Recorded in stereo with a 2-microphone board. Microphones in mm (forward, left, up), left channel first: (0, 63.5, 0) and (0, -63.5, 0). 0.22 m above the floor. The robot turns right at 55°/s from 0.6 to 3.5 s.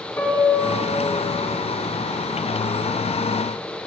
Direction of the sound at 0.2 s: 25° left.